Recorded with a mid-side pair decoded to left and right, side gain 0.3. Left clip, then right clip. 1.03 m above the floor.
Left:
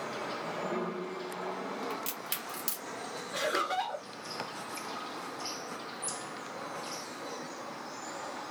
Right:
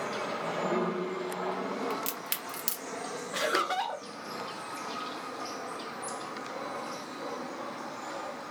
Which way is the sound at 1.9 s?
60° right.